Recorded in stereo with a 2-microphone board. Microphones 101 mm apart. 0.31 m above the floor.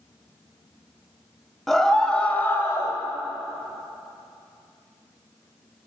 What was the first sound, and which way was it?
A scream, centre (ahead or behind).